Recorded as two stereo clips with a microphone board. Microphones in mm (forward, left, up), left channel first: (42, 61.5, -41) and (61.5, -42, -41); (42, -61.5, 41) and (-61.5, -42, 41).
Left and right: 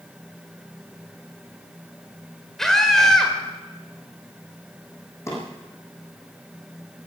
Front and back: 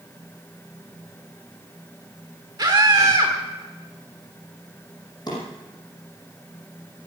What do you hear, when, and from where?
2.6 s a scream: 175° right, 1.5 m
5.3 s a drawer: 35° left, 6.5 m